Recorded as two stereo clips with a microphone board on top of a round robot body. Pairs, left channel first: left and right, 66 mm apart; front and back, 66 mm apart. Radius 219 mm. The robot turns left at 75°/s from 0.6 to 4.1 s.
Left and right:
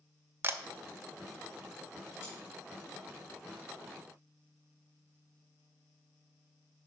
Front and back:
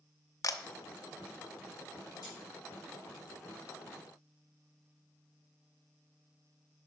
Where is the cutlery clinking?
30° left, 3.5 m; by 2.4 s 20° left, 3.5 m.